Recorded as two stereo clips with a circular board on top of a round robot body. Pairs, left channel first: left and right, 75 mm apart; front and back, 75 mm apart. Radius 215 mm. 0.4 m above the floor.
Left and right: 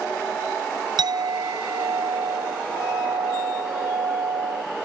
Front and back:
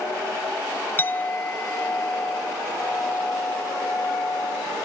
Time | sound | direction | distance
1.0 | a clink | 65° right | ?